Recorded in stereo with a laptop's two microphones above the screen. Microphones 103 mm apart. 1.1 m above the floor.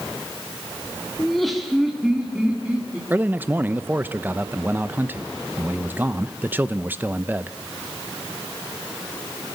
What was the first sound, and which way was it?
Laughter, 5° left (ahead or behind).